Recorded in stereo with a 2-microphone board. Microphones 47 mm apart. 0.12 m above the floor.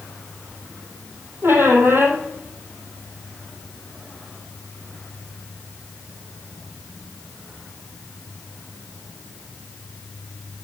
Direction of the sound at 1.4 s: 50° right (ahead or behind).